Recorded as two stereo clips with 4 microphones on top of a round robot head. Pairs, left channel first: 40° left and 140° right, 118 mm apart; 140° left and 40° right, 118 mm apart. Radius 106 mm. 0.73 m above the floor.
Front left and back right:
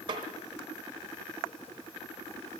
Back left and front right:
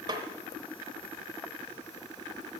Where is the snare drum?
95° right, 0.8 m.